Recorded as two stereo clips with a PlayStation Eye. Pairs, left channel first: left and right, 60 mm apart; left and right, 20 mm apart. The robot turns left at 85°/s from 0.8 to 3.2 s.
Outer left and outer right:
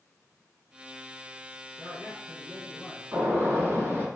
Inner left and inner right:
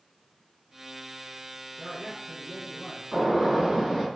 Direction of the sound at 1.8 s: 135° right.